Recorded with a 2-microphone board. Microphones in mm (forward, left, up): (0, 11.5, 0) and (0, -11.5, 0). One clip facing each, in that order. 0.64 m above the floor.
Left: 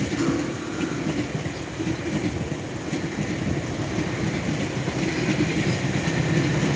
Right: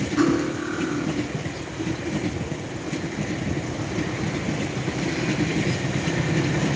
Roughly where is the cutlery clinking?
Right.